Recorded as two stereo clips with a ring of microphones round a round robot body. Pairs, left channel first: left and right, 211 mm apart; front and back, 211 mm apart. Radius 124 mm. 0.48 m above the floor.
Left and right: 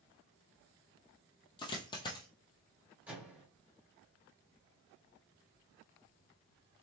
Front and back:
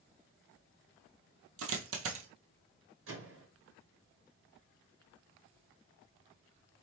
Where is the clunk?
No clunk in this recording.